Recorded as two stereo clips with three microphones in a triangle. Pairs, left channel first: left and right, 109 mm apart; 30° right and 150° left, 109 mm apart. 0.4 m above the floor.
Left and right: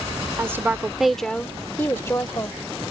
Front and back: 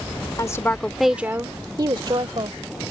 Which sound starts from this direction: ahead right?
A woman speaking, at 0.4 s.